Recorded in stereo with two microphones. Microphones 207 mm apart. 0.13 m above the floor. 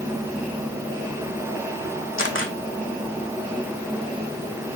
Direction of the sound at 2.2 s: 80° left.